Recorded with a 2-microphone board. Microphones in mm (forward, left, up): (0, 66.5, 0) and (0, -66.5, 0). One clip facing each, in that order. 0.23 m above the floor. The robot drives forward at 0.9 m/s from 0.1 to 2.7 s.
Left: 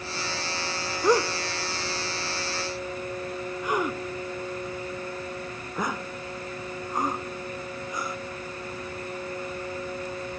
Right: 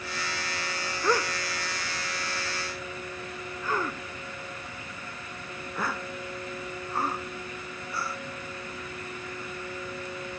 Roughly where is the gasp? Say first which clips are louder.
Left 5 dB; left.